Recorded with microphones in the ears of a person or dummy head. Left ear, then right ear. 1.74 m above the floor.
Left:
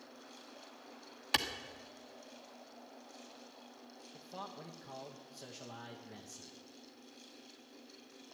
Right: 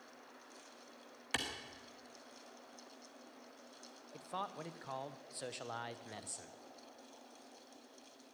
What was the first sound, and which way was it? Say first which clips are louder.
A clap: left 6 dB; 15° left (ahead or behind).